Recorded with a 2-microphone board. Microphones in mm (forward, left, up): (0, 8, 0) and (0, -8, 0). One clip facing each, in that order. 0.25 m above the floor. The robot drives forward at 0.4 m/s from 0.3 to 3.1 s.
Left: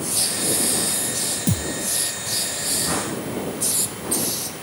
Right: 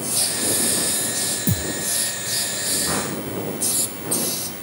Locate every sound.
1.5 s a thud: 15° left (ahead or behind)